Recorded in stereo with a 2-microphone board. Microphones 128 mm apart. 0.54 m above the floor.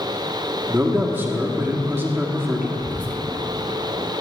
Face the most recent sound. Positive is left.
turn(degrees=15)  # may be behind; listen again after turning